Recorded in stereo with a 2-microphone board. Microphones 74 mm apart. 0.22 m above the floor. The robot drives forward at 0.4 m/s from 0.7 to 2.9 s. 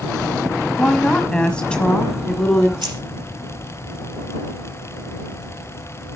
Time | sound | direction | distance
0.8 | a woman speaking | 15° left (ahead or behind) | 1.0 m
2.8 | keys jangling | 65° right (ahead or behind) | 4 m